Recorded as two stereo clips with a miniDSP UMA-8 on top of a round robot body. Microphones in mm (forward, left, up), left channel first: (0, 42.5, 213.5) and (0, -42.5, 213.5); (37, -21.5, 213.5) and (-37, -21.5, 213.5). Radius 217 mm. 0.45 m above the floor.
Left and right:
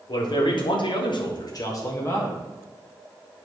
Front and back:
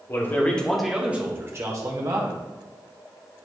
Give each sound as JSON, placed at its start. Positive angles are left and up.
{"t": 0.1, "sound": "a man speaking", "azimuth_deg": 55, "distance_m": 2.0}